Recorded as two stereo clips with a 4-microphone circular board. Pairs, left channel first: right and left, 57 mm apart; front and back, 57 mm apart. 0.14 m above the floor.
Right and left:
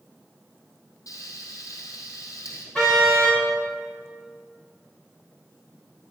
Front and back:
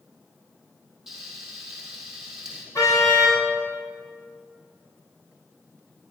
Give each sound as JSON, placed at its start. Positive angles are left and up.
{"t": 1.1, "sound": "frying", "azimuth_deg": -100, "distance_m": 3.5}
{"t": 2.8, "sound": "a car horn", "azimuth_deg": -15, "distance_m": 6.5}